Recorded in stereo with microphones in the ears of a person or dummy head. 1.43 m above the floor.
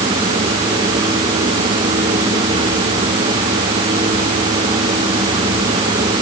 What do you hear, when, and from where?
Only background noise.